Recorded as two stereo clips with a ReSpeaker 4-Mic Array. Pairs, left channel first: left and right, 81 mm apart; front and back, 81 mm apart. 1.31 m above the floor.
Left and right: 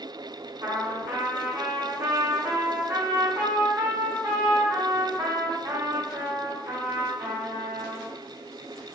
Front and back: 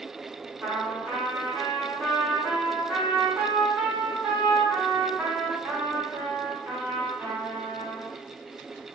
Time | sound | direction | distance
0.6 | a trumpet | 100° right | 1.6 m